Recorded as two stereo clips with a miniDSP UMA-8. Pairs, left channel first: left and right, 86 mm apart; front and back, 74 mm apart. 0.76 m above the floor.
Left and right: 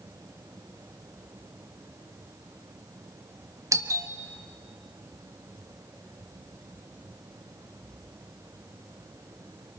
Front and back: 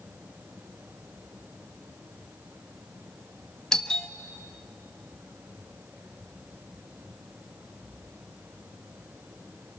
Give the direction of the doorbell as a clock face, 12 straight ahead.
3 o'clock.